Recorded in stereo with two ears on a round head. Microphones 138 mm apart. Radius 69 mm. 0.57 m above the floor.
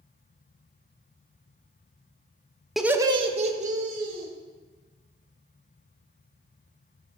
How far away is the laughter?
About 0.7 m.